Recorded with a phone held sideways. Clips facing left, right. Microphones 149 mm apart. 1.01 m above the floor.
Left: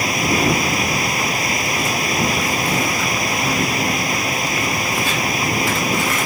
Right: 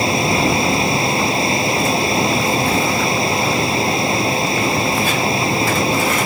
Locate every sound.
0.0 s a machine running: 30° right (ahead or behind)